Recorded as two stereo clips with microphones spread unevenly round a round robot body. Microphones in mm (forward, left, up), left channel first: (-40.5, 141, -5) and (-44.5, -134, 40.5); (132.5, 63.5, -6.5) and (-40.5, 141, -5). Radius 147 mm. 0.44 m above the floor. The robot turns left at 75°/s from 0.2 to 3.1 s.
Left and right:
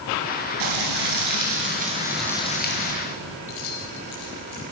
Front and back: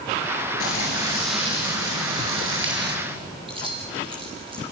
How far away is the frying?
About 5.5 m.